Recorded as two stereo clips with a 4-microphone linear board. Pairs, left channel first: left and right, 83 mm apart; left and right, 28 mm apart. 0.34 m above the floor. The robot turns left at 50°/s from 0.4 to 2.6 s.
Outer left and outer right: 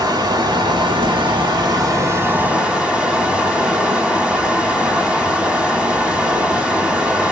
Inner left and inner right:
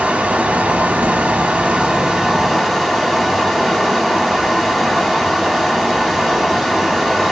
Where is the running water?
60° right, 1.1 m; by 7.3 s 170° right, 1.1 m.